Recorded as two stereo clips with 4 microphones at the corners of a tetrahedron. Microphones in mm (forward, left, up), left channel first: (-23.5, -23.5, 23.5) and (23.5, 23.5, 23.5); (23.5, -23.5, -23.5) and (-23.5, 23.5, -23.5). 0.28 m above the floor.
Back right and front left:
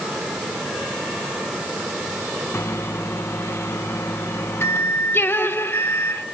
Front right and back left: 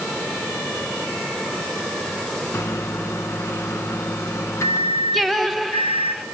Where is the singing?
130° right, 1.2 m.